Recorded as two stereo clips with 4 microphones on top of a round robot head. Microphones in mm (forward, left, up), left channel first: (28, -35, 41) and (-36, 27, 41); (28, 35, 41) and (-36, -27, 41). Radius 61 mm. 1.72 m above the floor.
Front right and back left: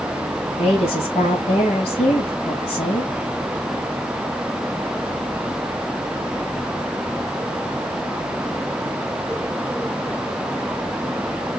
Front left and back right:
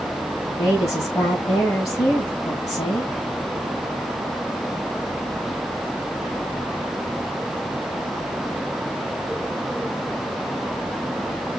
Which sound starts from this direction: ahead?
A woman speaking, at 0.6 s.